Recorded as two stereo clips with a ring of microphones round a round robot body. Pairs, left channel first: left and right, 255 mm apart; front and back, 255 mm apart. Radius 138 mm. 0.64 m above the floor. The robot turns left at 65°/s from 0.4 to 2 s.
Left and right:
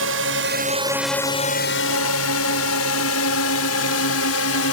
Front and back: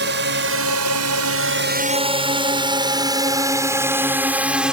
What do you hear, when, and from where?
0.0 s a drone: 130° right; by 4.7 s 95° left